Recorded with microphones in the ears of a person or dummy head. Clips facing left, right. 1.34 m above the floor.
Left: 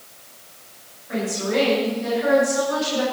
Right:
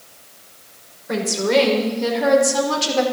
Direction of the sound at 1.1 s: 80° right.